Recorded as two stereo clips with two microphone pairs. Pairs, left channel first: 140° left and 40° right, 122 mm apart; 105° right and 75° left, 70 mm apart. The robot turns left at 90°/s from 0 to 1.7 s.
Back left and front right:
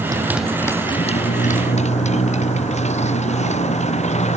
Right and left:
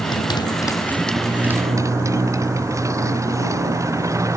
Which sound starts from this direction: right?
A motorcycle, at 0.0 s.